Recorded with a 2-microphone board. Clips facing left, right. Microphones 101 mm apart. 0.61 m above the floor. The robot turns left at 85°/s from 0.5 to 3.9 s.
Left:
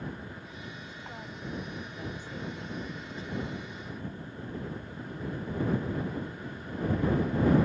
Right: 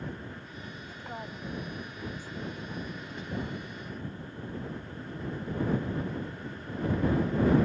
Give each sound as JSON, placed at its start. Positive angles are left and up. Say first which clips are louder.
{"t": 0.9, "sound": "a woman speaking", "louder": "right 2 dB", "azimuth_deg": -125}